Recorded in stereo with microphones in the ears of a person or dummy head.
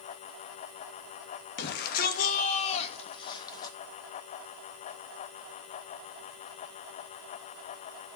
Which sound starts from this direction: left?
A shout, at 1.6 s.